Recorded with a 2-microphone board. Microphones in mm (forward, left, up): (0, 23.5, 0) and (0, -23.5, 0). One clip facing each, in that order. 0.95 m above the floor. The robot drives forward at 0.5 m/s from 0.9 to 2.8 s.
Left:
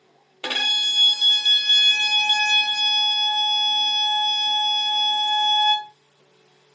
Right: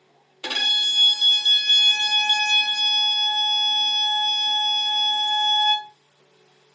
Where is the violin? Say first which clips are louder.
Even; 25° left (ahead or behind), 0.8 m; by 5.9 s 20° left (ahead or behind), 1.1 m.